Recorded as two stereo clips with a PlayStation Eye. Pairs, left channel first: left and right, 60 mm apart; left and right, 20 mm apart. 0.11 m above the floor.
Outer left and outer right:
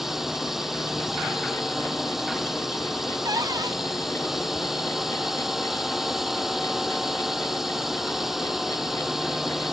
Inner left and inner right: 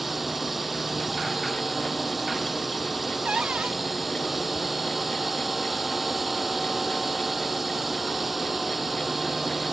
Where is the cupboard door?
85° right.